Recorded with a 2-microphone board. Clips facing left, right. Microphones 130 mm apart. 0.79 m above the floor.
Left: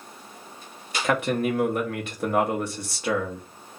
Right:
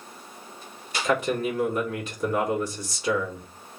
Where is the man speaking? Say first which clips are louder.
Left 1 dB; 65° left (ahead or behind), 1.0 m.